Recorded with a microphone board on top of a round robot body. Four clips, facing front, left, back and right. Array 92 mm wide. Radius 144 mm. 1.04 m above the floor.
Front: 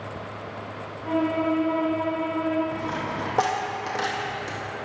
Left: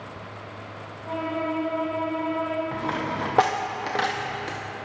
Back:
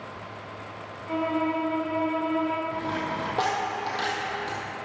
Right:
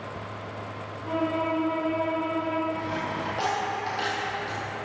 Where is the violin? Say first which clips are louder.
Right 1 dB, front 3 dB; 15° right, 3.5 m.